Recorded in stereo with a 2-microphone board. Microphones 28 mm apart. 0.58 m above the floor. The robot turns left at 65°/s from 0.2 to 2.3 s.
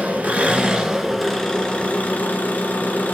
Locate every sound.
0.0 s an engine running: 115° right, 2.5 m; by 3.1 s 105° left, 2.5 m